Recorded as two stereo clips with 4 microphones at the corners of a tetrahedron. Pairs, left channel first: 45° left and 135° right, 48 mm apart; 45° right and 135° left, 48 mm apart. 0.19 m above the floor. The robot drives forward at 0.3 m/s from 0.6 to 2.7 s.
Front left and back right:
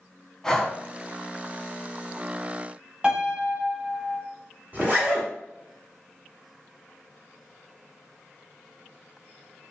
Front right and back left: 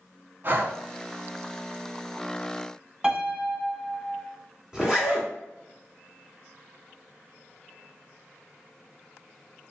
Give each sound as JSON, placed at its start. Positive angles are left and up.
{"t": 0.4, "sound": "breathing", "azimuth_deg": 120, "distance_m": 0.6}
{"t": 3.0, "sound": "a piano", "azimuth_deg": 180, "distance_m": 0.6}
{"t": 4.7, "sound": "a zipper", "azimuth_deg": -155, "distance_m": 1.0}